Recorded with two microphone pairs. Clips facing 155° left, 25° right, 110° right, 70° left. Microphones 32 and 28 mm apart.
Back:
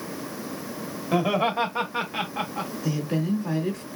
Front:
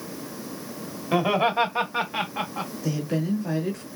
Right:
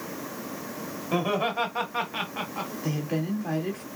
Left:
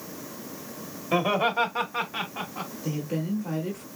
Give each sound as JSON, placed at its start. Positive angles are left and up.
{"t": 1.1, "sound": "laughter", "azimuth_deg": 15, "distance_m": 1.3}
{"t": 2.8, "sound": "a woman speaking", "azimuth_deg": -110, "distance_m": 2.0}